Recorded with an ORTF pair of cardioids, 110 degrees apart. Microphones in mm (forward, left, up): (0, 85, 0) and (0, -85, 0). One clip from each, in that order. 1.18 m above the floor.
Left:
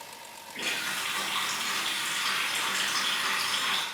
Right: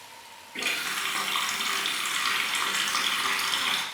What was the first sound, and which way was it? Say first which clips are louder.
A running tap: right 2 dB; 35° right.